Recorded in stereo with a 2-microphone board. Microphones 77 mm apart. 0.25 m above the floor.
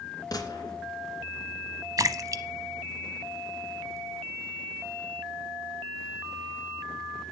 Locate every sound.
0.3 s a gunshot: 55° left (ahead or behind), 3 m
2.0 s a splash: 50° right (ahead or behind), 0.8 m